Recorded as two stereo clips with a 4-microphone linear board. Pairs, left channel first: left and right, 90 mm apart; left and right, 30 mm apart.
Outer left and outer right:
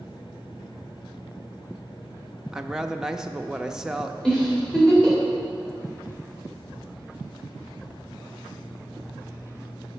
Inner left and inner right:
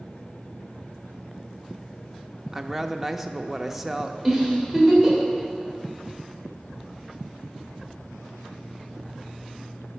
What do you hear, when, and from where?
2.5 s a woman speaking: 5° right (ahead or behind), 0.5 m
4.2 s a giggle: 10° left (ahead or behind), 3 m